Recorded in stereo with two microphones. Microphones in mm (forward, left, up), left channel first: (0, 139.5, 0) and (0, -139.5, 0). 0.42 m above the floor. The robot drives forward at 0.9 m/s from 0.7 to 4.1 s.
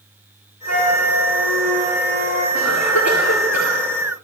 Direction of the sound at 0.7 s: 75° right (ahead or behind).